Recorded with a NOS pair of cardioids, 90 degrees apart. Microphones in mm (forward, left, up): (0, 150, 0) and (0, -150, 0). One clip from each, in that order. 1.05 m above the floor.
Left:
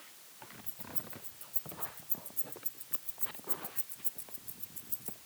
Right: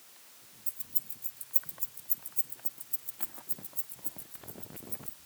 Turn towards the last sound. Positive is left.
turn(degrees=15)